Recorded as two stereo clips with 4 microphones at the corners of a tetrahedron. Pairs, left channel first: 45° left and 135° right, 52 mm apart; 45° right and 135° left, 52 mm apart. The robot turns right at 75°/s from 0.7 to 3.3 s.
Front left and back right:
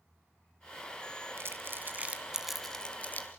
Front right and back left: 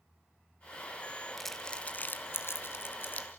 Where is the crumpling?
135° right, 1.7 m; by 3.3 s 10° left, 1.7 m.